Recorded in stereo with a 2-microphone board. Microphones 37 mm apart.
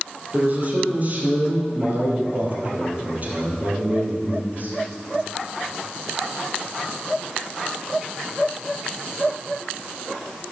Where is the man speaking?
40° right (ahead or behind), 3 m.